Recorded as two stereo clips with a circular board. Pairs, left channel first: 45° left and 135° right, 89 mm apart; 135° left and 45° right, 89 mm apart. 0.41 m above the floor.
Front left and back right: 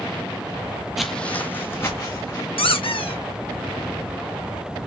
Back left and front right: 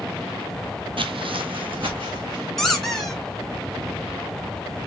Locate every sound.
1.0 s footsteps: 50° right, 0.7 m; by 2.5 s 15° right, 2.5 m
2.6 s a squeak: 50° left, 1.1 m